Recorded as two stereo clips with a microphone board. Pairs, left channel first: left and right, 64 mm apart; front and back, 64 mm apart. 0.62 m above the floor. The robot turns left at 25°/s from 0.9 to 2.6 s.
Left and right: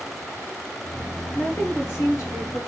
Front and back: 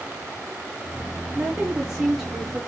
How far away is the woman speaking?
About 1.9 m.